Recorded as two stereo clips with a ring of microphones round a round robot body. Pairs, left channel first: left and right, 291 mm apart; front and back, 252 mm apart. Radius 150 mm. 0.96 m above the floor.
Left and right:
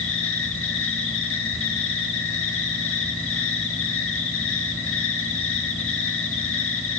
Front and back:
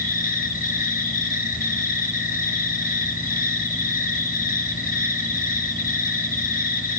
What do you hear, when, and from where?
0.0 s an insect: 50° left, 1.1 m